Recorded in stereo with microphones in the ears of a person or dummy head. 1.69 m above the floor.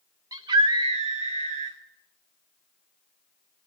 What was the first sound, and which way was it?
A scream, 25° right (ahead or behind).